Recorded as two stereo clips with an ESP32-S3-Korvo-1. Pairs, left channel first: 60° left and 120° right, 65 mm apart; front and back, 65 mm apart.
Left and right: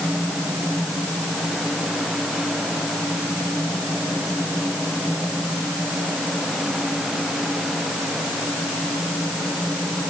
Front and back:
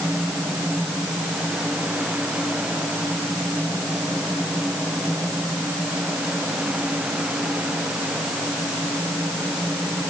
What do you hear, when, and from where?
Only background noise.